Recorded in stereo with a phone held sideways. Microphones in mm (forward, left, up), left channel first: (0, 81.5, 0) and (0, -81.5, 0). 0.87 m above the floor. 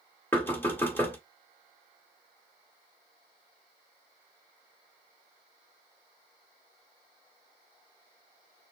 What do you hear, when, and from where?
0.3 s knocking: 10° left (ahead or behind), 1.1 m